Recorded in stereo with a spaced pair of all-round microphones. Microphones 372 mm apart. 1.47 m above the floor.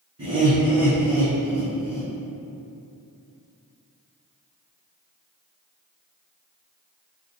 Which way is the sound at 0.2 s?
40° right (ahead or behind).